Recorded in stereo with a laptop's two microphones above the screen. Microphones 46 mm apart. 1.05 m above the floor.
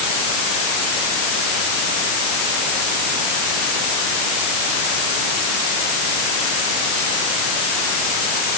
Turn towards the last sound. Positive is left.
No sound to turn to.